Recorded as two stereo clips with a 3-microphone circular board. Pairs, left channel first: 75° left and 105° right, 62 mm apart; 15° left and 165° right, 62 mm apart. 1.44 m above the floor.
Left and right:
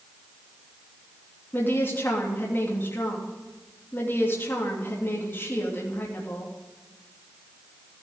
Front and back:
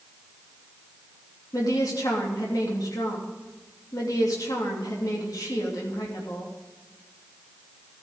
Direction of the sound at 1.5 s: 25° left.